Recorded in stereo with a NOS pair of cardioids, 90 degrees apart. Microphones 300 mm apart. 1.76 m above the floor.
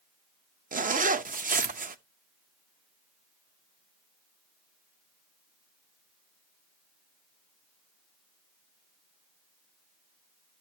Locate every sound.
0.7 s a zipper: 25° right, 0.8 m